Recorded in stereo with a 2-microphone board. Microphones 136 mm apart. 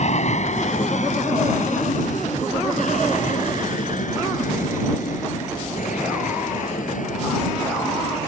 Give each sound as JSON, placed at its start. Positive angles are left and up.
{"t": 0.0, "sound": "an aircraft", "side_deg": 60}